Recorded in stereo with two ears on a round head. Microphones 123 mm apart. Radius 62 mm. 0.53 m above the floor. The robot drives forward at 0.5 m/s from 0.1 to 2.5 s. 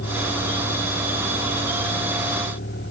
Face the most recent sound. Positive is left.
turn(degrees=90)